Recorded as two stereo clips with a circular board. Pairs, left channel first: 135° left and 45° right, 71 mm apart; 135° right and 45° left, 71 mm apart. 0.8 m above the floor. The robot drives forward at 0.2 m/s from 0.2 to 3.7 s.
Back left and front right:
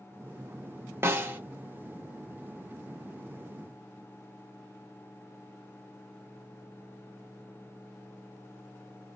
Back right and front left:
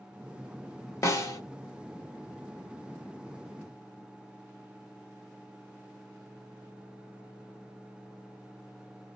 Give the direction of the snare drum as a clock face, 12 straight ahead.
3 o'clock.